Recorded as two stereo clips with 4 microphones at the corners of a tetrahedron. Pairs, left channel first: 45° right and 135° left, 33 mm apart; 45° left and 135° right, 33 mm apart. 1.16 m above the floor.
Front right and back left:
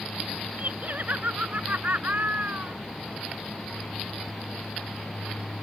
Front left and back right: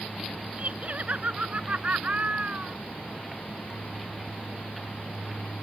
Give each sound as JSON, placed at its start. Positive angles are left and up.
{"t": 0.6, "sound": "laughter", "azimuth_deg": 180}